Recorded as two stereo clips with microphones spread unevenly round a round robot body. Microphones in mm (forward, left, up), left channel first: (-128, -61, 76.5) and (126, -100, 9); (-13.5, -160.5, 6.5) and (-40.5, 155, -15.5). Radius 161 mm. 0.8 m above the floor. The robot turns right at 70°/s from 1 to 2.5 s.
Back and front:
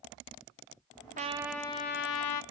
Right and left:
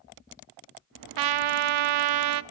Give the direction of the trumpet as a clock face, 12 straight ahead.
10 o'clock.